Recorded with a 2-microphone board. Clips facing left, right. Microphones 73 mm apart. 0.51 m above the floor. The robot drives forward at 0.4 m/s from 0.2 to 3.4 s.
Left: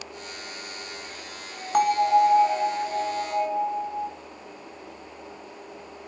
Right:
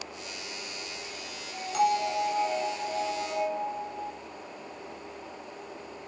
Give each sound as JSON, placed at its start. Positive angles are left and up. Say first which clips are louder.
{"t": 1.7, "sound": "a bell", "louder": "left 7 dB", "side_deg": 50, "distance_m": 2.0}